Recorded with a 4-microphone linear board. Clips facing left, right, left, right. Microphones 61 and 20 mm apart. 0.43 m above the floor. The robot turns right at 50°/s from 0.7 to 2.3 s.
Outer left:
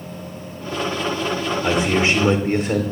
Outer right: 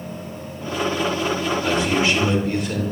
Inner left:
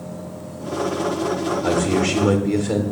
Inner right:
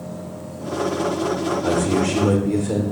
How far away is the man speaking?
About 0.9 m.